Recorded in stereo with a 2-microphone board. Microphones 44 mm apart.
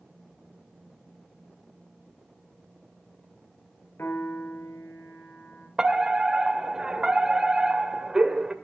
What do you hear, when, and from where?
4.0 s a piano: 85° left, 5 m
5.8 s a fire alarm: 15° right (ahead or behind), 2 m